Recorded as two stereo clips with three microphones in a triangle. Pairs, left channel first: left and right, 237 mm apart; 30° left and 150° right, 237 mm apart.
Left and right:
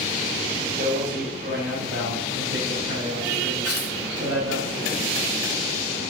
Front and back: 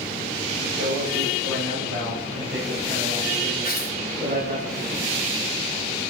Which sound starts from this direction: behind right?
A man speaking, at 0.8 s.